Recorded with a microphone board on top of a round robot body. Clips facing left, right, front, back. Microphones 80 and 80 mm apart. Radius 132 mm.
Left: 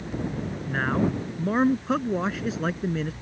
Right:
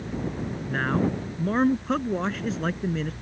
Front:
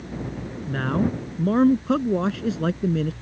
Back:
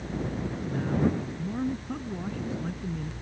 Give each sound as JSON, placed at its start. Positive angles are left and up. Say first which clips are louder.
{"t": 0.7, "sound": "a man speaking", "louder": "even, front 4 dB", "azimuth_deg": 5}